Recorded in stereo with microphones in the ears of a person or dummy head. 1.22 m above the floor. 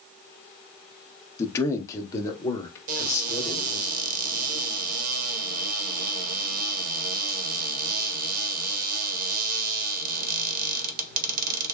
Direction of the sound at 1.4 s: 25° left (ahead or behind).